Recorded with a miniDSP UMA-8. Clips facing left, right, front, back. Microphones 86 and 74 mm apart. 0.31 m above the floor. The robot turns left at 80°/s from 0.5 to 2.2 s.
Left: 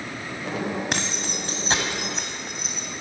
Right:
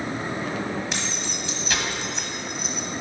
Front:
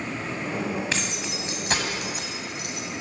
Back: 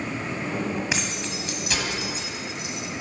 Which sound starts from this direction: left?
Keys jangling, at 0.9 s.